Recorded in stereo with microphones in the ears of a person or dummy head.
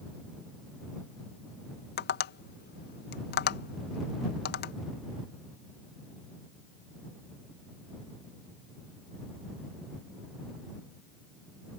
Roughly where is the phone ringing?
No phone ringing in this recording.